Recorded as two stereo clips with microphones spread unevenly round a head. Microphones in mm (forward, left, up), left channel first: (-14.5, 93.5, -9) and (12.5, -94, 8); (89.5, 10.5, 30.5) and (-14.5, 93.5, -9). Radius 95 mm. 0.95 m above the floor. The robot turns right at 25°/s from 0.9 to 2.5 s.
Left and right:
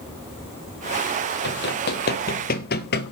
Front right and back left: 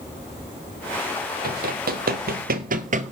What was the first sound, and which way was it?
Running footsteps, 130° left.